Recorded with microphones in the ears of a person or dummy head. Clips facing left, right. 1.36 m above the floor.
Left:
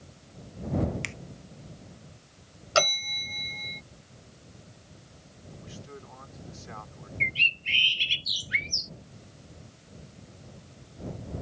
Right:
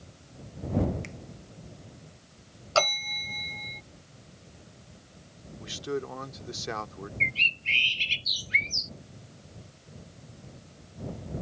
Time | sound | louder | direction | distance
1.0 | a finger snap | left 1 dB | 65° left (ahead or behind) | ?
2.8 | a bell | even | 25° left (ahead or behind) | ?
5.6 | a man speaking | right 14 dB | 85° right | ?
7.2 | a bird | right 1 dB | 20° left (ahead or behind) | ?